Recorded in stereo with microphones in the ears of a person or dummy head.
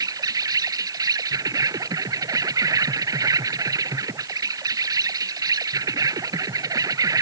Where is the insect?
20° right (ahead or behind).